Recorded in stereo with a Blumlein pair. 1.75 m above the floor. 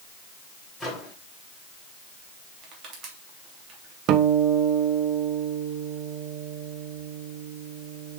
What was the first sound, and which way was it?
A microwave, 10° left.